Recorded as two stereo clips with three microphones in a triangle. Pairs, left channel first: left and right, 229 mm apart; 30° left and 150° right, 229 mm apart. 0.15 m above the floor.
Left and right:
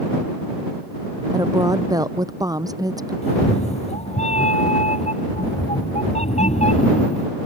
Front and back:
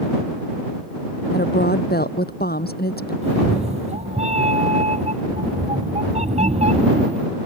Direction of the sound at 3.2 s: 150° left.